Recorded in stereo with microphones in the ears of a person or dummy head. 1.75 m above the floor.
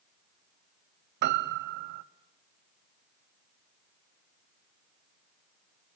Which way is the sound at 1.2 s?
55° right (ahead or behind).